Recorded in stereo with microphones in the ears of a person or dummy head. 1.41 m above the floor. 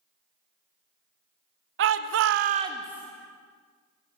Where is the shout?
65° right (ahead or behind), 1.0 m; by 3.0 s centre (ahead or behind), 1.1 m.